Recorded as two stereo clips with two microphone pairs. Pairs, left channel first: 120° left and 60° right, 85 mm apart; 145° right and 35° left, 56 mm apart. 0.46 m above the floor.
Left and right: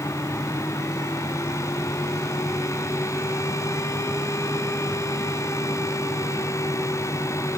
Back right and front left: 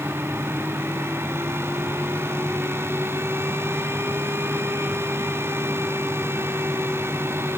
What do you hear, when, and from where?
Only background noise.